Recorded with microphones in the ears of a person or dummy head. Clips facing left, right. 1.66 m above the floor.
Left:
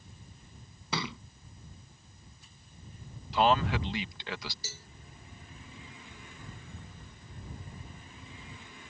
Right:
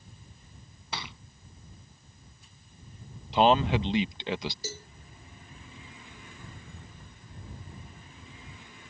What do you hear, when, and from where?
0.9 s a thud: 70° left (ahead or behind)
3.3 s a man speaking: 25° right (ahead or behind)
4.6 s a cowbell: 40° right (ahead or behind)